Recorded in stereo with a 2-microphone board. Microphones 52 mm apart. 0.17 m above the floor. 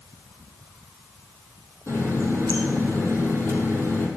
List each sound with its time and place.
1.9 s a running tap: 55° left (ahead or behind), 4 m